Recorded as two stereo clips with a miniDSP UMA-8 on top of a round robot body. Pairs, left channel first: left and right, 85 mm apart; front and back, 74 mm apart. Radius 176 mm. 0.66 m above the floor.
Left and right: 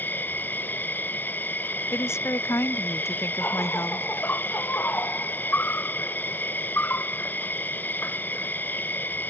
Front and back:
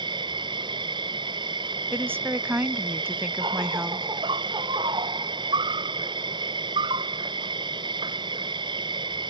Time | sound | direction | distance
0.0 | an insect | 160° left | ?
1.9 | a woman speaking | 135° left | ?